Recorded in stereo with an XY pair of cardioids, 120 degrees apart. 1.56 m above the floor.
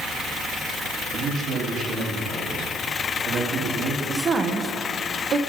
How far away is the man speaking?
About 3 m.